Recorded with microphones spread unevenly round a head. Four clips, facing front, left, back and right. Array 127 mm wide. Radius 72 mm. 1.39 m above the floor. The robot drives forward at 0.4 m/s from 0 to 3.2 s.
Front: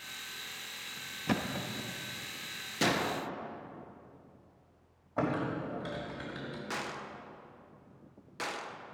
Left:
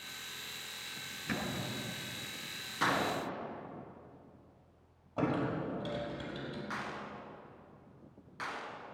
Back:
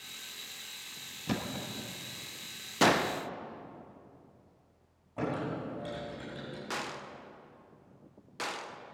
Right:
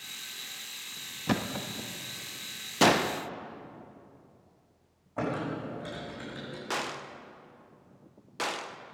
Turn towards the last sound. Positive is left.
turn(degrees=-80)